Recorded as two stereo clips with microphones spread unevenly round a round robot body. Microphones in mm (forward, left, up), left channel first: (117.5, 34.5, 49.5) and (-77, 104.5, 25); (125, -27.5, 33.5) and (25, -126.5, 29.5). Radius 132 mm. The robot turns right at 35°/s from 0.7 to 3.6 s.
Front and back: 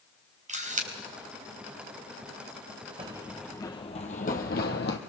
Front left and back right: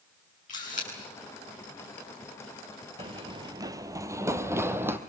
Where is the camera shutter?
105° left, 4 m; by 0.9 s 110° left, 4 m.